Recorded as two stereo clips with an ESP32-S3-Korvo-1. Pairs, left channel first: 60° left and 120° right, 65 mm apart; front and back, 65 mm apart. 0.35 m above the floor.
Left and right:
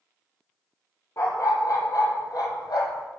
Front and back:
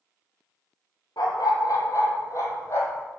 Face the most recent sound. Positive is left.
turn(degrees=45)